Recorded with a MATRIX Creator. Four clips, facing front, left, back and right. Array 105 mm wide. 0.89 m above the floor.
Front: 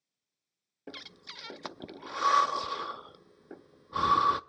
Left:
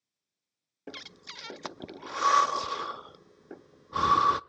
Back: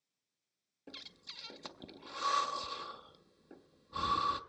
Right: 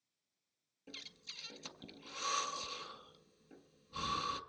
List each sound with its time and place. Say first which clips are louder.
0.9 s breathing: left 12 dB, front 8 dB; 60° left, 0.5 m